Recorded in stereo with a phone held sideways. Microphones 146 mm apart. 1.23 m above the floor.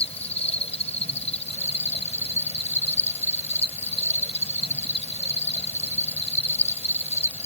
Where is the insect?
45° left (ahead or behind).